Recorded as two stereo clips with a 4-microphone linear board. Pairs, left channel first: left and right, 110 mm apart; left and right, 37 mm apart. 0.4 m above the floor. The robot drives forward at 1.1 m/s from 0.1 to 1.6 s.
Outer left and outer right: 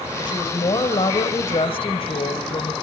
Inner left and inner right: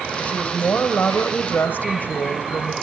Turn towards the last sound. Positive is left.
turn(degrees=55)  # may be behind; listen again after turning